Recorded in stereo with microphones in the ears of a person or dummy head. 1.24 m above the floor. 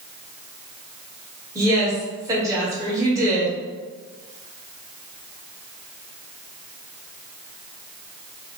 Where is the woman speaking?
20° right (ahead or behind), 1.4 m.